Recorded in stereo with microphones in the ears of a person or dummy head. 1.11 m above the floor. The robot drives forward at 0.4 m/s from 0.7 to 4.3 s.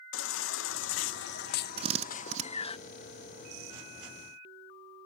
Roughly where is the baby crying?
Left.